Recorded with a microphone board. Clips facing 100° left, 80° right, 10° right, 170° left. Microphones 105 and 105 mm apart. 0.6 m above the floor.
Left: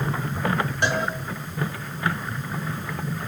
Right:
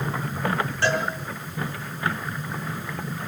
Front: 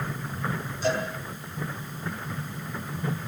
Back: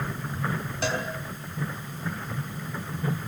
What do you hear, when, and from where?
0.8 s a cowbell: 175° left, 5.5 m